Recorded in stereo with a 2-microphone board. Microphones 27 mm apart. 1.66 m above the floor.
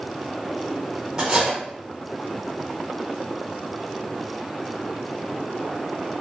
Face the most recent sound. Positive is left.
turn(degrees=-20)  # may be behind; listen again after turning